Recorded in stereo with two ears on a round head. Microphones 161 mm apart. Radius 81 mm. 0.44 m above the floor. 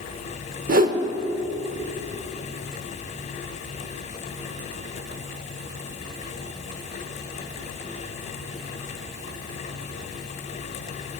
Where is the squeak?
I don't hear a squeak.